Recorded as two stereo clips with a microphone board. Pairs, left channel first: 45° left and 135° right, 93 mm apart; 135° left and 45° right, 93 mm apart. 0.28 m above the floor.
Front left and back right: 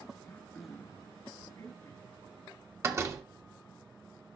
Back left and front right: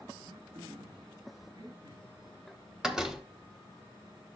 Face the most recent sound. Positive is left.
turn(degrees=-125)